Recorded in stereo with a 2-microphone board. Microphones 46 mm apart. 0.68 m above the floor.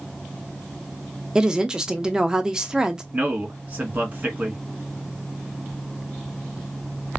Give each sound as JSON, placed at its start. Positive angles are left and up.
{"t": 1.4, "sound": "a woman speaking", "side_deg": -15, "distance_m": 0.6}
{"t": 3.1, "sound": "a man speaking", "side_deg": -35, "distance_m": 1.6}